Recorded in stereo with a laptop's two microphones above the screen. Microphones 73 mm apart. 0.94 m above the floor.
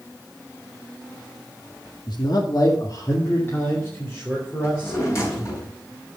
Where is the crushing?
I don't hear crushing.